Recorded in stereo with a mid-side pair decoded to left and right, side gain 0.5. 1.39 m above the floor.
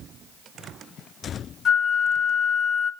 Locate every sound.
1.6 s a flute: 50° left, 0.7 m